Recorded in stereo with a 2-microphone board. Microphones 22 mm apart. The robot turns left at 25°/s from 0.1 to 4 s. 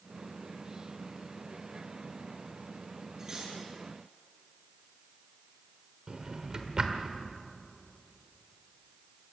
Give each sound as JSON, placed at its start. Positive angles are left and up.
{"t": 3.2, "sound": "cutlery clinking", "side_deg": -35, "distance_m": 8.0}
{"t": 6.1, "sound": "a drawer", "side_deg": -30, "distance_m": 1.7}